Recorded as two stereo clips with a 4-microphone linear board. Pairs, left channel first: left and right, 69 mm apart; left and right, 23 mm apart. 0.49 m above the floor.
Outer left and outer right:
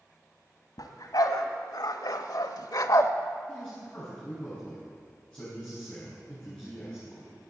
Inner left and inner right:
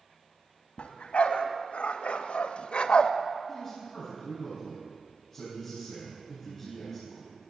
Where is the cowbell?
I don't hear a cowbell.